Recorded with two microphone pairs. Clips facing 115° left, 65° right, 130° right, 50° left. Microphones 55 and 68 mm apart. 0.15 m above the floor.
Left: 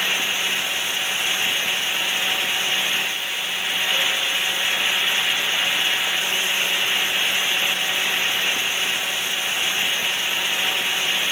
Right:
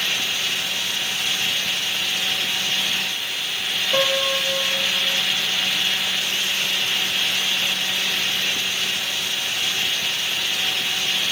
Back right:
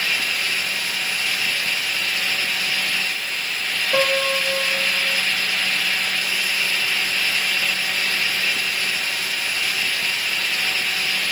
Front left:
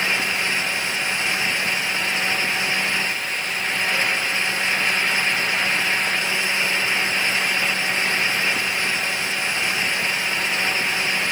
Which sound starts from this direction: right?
A piano, at 3.9 s.